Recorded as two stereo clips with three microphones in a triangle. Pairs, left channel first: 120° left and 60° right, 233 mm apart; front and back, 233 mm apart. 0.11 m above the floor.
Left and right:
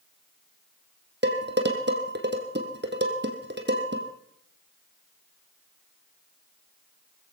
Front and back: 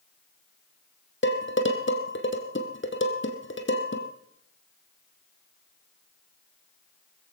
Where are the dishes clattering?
25° right, 2.5 m.